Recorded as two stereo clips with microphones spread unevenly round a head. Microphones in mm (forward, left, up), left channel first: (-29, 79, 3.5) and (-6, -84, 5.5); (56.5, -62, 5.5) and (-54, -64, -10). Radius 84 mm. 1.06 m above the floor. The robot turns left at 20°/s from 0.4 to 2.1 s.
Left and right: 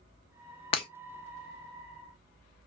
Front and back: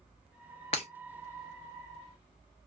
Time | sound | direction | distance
0.7 | breaking glass | 40° left | 0.6 m